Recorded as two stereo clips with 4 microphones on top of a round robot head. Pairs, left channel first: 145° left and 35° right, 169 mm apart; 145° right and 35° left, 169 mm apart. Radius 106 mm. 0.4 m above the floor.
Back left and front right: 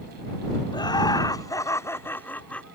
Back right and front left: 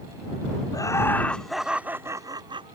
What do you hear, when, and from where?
0.7 s laughter: 175° left; by 2.8 s 65° left